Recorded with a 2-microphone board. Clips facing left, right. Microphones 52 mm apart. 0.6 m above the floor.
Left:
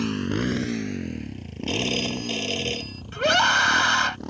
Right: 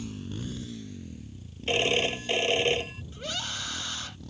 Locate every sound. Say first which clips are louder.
0.0 s a motorcycle: left 12 dB; 80° left; by 4.3 s 60° left (ahead or behind)
1.7 s a phone ringing: right 1 dB; 20° right (ahead or behind)
3.1 s a scream: left 18 dB; 75° left (ahead or behind)